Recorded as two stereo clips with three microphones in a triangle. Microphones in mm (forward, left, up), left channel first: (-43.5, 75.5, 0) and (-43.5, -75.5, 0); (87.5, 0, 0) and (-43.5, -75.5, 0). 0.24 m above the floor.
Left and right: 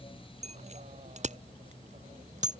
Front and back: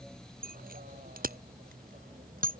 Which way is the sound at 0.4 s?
135° right.